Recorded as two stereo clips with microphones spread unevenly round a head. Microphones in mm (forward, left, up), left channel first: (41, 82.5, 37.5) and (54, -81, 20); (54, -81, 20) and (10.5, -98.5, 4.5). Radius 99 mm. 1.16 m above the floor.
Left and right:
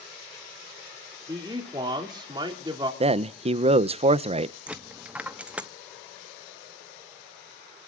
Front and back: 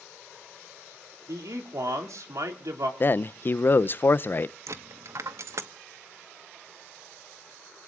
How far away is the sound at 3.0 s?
About 0.6 m.